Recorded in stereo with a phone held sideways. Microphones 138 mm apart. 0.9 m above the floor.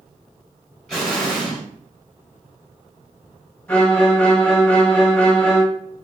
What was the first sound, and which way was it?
An explosion, 5° left (ahead or behind).